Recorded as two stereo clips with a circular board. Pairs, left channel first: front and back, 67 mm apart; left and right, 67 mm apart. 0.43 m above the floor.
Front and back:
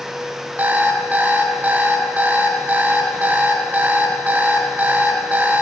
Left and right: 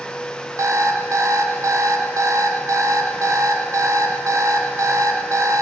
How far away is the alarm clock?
About 1.6 m.